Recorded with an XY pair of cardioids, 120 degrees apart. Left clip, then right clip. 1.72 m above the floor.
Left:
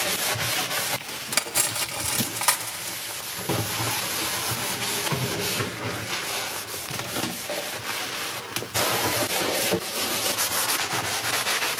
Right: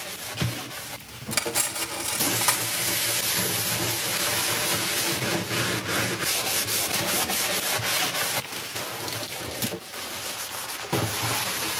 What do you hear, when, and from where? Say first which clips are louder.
1.3 s cutlery clinking: left 1 dB; 15° left, 2.5 m